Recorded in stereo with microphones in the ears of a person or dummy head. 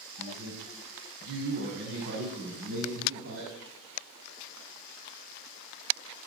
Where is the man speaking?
55° right (ahead or behind), 8.5 m; by 3.5 s 50° right (ahead or behind), 7 m.